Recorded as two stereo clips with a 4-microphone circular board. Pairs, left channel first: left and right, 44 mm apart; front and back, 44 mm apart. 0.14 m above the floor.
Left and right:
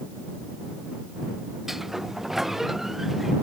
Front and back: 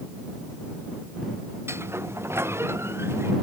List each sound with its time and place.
1.7 s a sliding door: 170° right